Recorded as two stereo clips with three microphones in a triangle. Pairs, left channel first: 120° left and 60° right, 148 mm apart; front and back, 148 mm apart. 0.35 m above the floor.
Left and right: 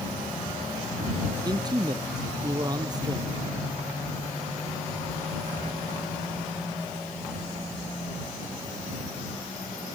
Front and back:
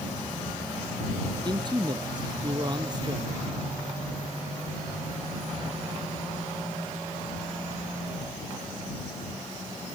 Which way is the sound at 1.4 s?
120° right.